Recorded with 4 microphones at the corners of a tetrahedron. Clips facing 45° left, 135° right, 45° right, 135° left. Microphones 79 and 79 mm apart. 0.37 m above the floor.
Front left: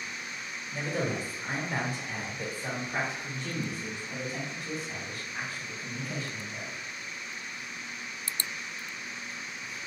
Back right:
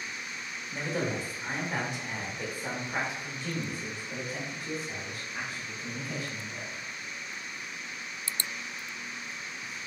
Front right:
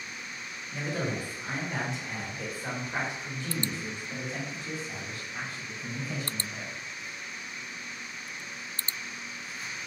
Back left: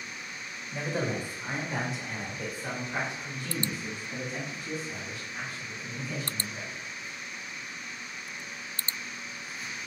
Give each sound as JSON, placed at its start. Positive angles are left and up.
{"t": 0.7, "sound": "a man speaking", "azimuth_deg": 170, "distance_m": 1.7}